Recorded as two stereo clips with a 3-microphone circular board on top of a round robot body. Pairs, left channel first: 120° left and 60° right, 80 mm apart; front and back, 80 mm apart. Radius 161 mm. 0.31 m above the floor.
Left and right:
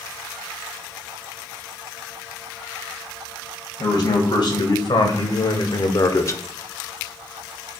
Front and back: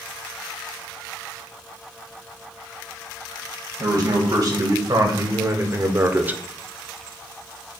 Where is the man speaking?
145° left, 2.5 m; by 6.4 s 120° left, 0.9 m.